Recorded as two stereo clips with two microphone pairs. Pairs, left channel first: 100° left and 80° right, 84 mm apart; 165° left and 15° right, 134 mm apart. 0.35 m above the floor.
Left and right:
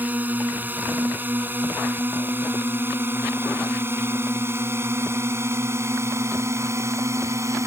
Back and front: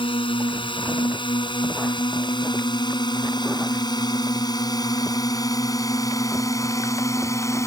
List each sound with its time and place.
0.0 s a drone: 150° right; by 7.7 s 130° right